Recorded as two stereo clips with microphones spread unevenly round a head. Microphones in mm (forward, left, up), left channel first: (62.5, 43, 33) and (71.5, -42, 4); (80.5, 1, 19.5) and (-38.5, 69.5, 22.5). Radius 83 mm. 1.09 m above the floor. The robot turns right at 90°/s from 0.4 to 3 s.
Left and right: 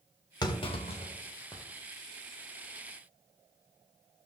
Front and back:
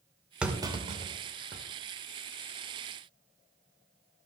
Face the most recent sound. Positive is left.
turn(degrees=-60)